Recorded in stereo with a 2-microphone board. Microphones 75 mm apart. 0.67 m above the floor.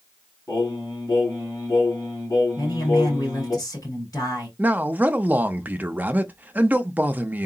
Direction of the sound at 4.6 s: 25° right (ahead or behind).